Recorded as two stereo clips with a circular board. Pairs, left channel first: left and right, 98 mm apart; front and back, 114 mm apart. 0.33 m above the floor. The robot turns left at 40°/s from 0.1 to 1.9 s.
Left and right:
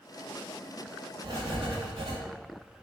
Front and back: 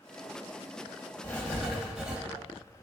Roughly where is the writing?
Right.